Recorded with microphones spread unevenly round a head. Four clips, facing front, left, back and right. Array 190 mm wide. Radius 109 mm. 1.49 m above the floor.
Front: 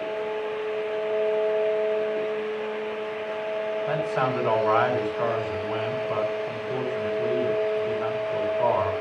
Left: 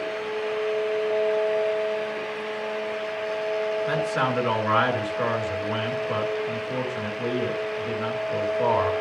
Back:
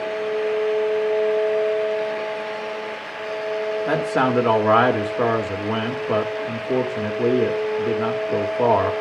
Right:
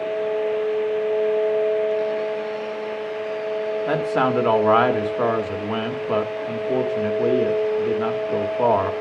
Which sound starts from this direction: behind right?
A man speaking, at 3.9 s.